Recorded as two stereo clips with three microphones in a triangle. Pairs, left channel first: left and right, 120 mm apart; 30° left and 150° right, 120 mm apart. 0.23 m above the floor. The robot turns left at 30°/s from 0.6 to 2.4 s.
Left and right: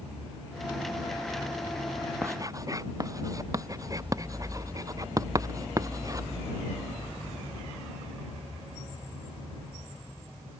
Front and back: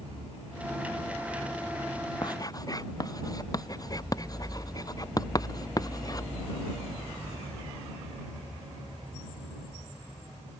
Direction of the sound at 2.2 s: 25° right.